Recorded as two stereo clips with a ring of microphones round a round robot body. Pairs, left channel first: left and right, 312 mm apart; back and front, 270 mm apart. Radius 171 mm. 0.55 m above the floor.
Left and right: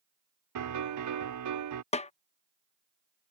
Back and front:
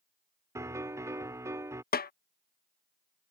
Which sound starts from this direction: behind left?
A snare drum, at 1.9 s.